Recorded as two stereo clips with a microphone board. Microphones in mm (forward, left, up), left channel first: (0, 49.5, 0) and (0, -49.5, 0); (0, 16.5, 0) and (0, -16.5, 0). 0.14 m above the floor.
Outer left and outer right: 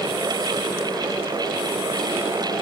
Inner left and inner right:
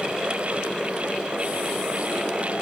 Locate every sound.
Only background noise.